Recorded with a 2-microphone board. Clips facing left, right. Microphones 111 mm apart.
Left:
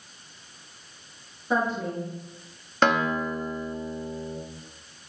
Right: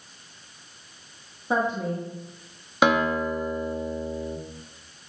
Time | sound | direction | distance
1.5 | a woman speaking | 20° right (ahead or behind) | 1.1 m
2.8 | a guitar | 10° right (ahead or behind) | 0.5 m